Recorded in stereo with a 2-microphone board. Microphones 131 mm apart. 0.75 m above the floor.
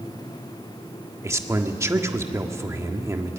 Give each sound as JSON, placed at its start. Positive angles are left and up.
{"t": 1.2, "sound": "a man speaking", "side_deg": -20, "distance_m": 1.5}